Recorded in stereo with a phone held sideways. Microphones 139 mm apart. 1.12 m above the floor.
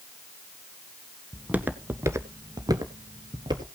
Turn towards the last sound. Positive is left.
turn(degrees=-30)  # may be behind; listen again after turning